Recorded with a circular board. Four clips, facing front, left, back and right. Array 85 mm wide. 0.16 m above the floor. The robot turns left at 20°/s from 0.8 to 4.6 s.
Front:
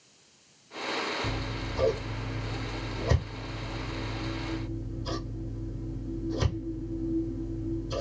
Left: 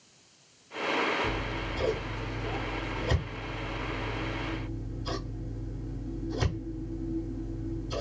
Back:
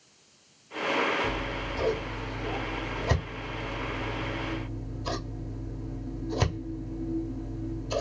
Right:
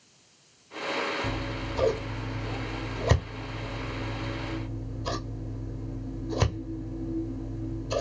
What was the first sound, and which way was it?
Scissors, 65° right.